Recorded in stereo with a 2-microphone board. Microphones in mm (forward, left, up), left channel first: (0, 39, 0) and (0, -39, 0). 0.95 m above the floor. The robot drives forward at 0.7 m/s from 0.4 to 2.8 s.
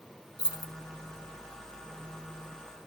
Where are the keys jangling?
60° left (ahead or behind), 0.8 m; by 0.7 s 75° left (ahead or behind), 0.7 m.